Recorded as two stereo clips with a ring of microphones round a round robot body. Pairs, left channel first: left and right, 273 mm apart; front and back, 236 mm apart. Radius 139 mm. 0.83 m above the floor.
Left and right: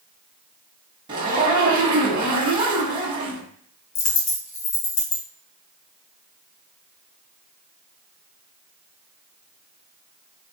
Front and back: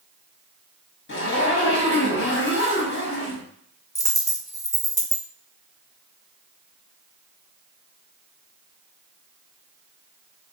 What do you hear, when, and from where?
1.1 s a zipper: 25° right, 1.2 m
4.0 s a dropped coin: 75° left, 1.4 m